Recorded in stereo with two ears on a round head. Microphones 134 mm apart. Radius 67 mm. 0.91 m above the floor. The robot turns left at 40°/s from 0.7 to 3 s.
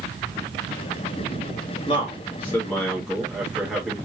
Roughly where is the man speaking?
Ahead left.